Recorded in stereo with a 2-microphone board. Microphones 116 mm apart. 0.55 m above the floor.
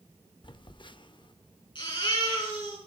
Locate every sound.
0.4 s a phone buzzing: 45° left (ahead or behind), 0.5 m
1.8 s a baby crying: 45° left (ahead or behind), 8.5 m